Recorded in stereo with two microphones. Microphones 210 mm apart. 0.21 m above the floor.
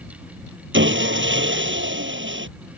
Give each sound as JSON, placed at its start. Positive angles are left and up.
{"t": 0.7, "sound": "sawing", "side_deg": -65}